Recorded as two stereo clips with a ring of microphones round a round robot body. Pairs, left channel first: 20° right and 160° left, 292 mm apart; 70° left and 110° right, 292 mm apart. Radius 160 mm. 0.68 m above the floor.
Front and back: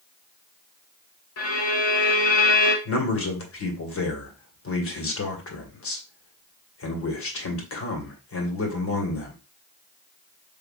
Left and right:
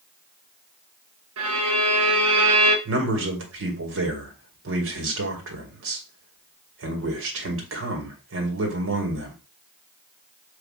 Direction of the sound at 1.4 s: 65° right.